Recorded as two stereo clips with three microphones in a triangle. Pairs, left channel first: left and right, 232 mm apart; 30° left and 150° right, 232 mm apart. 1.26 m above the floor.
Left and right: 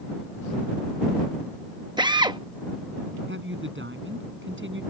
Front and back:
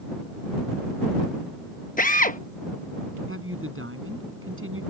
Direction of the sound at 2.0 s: 25° right.